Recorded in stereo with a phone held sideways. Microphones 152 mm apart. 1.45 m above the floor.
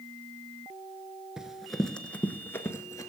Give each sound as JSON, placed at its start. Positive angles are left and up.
{"t": 1.4, "sound": "running footsteps", "side_deg": -5, "distance_m": 1.4}